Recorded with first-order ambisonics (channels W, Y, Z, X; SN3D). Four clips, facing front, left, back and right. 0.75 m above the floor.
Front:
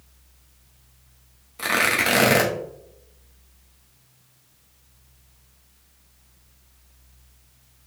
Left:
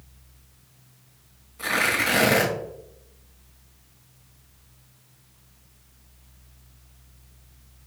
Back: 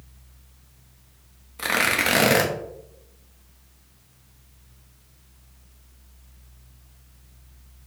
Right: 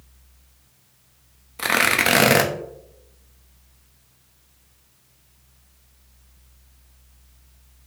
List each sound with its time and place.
1.6 s tearing paper: 95° right, 1.0 m